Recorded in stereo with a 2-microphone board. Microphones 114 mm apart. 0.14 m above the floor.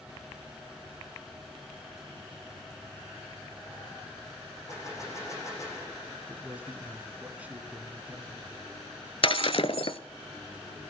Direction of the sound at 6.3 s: 15° right (ahead or behind).